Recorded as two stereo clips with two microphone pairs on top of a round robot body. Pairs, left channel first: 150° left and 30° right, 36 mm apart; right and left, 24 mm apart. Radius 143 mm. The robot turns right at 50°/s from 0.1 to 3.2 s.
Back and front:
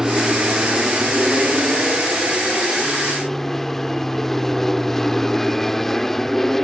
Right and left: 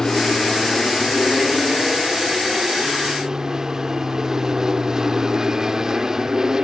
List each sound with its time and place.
0.0 s an aircraft: 85° right; by 6.7 s 70° left